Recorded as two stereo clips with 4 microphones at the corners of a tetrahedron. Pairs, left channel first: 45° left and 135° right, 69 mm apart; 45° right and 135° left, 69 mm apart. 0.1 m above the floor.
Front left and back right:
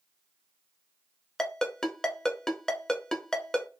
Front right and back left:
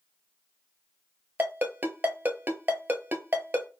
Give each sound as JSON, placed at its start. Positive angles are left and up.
{"t": 1.4, "sound": "a ringtone", "azimuth_deg": 120, "distance_m": 0.7}